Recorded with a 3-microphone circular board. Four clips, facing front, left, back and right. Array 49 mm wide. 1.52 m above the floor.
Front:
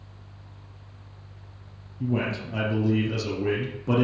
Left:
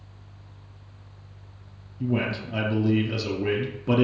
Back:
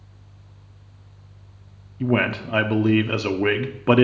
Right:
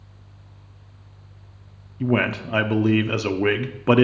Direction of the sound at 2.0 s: 135° right.